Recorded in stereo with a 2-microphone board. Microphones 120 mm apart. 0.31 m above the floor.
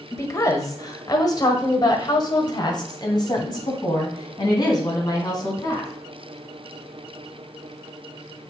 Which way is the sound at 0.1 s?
25° left (ahead or behind).